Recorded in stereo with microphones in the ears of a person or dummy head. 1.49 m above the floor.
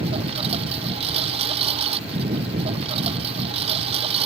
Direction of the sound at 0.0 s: 35° right (ahead or behind).